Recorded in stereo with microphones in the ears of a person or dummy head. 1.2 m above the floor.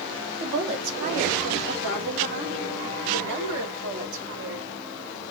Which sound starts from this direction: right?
A woman speaking, at 0.4 s.